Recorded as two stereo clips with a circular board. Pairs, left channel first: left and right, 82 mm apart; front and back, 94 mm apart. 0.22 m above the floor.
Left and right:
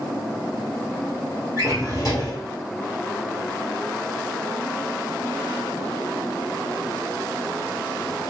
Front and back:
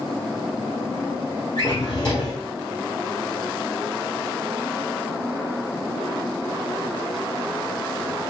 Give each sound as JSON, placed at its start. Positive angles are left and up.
{"t": 1.6, "sound": "a drawer", "azimuth_deg": 45, "distance_m": 1.7}